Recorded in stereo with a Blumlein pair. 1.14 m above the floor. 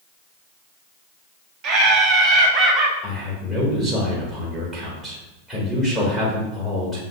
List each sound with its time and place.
1.6 s laughter: 35° right, 0.6 m; by 2.9 s 15° right, 1.2 m
3.0 s a man speaking: 5° right, 1.4 m